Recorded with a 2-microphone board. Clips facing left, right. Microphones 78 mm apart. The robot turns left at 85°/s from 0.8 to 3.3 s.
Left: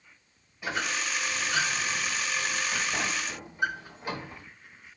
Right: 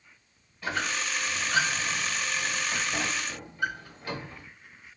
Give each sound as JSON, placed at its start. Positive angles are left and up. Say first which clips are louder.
{"t": 0.6, "sound": "a squeak", "louder": "right 1 dB", "side_deg": 10, "distance_m": 1.4}